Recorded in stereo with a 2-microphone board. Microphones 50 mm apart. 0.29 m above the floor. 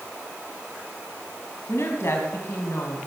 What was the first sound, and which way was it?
A woman speaking, 60° left (ahead or behind).